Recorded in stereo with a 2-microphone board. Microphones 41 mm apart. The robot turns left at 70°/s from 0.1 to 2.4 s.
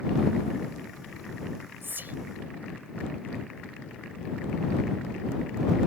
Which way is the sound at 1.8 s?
65° right (ahead or behind).